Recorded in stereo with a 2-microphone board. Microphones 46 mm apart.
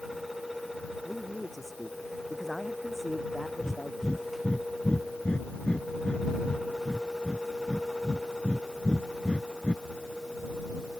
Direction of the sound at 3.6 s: 25° left (ahead or behind).